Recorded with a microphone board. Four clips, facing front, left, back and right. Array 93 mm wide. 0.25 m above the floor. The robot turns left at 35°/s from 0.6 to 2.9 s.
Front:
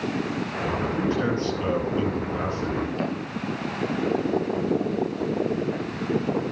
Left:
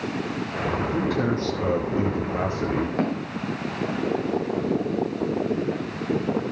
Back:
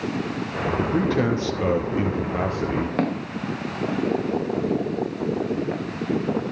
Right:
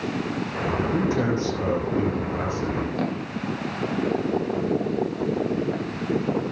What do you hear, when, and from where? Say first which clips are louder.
0.8 s a man speaking: right 2 dB, back 4 dB; 150° right, 4.5 m; by 2.9 s 140° left, 4.5 m
3.0 s footsteps: left 1 dB, back 3 dB; 165° left, 8 m; by 5.8 s straight behind, 11 m